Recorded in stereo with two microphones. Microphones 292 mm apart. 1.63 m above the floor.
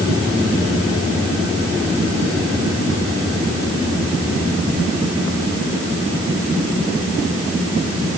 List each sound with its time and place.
Only background noise.